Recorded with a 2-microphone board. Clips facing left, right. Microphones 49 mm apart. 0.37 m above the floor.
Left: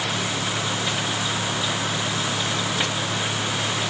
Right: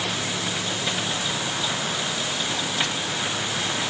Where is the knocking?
No knocking in this recording.